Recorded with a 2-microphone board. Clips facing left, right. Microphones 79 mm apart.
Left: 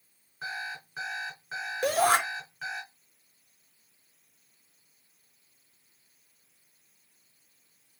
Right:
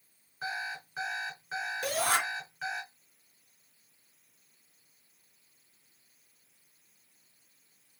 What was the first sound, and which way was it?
An alarm clock, centre (ahead or behind).